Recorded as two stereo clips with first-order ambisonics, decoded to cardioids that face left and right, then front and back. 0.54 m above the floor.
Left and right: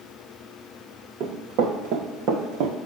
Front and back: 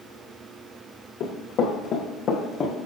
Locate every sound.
1.2 s running footsteps: 55° right, 2.5 m; by 2.8 s 70° right, 1.7 m